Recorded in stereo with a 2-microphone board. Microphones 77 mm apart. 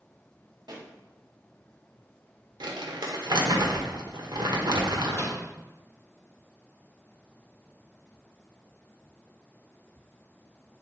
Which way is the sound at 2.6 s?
70° right (ahead or behind).